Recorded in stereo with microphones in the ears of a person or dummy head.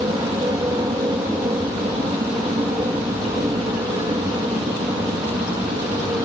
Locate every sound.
0.0 s an aircraft: 20° right (ahead or behind)